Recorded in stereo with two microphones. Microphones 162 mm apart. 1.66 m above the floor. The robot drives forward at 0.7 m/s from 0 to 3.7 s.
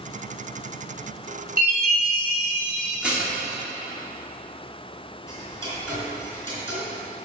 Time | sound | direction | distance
1.6 | a chime | 85° right | 3.5 m
3.0 | dishes clattering | 5° right (ahead or behind) | 2.5 m
5.3 | ticking | 15° left (ahead or behind) | 3 m